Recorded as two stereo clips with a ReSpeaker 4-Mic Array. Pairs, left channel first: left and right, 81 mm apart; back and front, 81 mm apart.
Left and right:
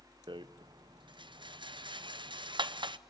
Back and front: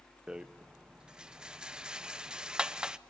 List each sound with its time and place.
0.3 s a rattle: 80° right, 0.7 m